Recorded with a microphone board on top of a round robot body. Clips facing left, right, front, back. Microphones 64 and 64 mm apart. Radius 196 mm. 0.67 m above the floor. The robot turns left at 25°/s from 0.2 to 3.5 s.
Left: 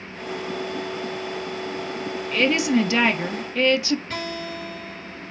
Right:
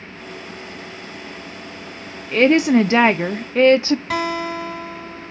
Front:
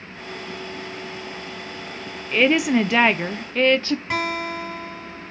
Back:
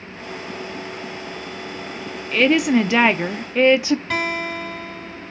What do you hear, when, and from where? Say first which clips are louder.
2.3 s a woman speaking: right 7 dB, back 2 dB; 80° right, 0.6 m; by 4.0 s 110° right, 0.6 m
4.1 s a guitar: right 8 dB, back 1 dB; 80° right, 2.5 m